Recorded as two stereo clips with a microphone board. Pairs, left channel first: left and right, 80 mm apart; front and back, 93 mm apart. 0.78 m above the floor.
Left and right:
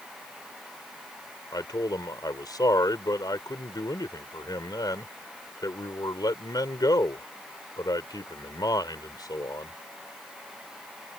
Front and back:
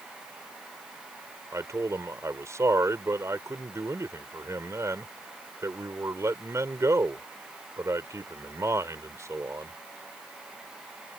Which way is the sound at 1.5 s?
125° left.